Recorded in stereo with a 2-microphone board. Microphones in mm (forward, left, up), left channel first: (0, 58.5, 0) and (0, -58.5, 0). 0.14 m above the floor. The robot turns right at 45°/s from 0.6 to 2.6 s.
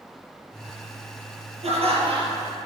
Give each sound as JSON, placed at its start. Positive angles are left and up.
{"t": 1.6, "sound": "laughter", "azimuth_deg": -75, "distance_m": 4.5}